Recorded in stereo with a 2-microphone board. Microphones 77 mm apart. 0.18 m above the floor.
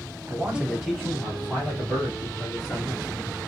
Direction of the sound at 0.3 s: 20° right (ahead or behind).